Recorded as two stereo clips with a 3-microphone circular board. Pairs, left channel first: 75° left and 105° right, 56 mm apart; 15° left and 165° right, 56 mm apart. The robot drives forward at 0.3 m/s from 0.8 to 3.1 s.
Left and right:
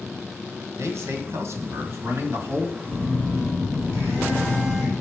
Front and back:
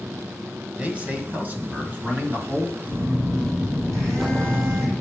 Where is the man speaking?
105° right, 1.9 m; by 2.8 s 125° right, 2 m.